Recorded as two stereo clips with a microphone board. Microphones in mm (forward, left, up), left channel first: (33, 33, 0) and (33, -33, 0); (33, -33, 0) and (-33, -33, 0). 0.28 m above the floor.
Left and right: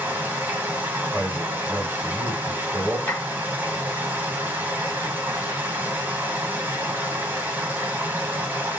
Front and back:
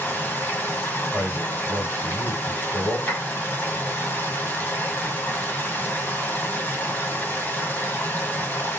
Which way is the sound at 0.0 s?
45° right.